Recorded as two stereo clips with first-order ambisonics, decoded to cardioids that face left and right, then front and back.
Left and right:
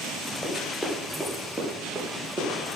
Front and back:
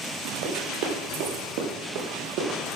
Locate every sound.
0.4 s running footsteps: 175° right, 5.5 m; by 2.6 s 155° right, 5 m